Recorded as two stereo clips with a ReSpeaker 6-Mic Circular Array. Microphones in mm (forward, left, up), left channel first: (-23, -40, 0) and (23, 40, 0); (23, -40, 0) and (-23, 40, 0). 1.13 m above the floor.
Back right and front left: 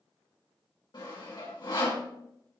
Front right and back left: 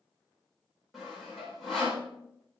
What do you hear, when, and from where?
0.9 s sawing: 150° right, 4.5 m